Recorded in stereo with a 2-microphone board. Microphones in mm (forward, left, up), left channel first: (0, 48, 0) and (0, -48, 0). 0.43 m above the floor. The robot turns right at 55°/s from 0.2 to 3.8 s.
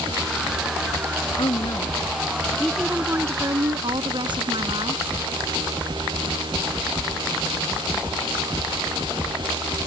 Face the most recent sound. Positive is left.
turn(degrees=-120)